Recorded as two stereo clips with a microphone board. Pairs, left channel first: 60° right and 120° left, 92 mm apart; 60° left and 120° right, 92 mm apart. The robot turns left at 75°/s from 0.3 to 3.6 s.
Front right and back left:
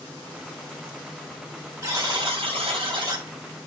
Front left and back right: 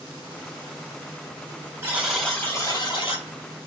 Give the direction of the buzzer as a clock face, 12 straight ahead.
6 o'clock.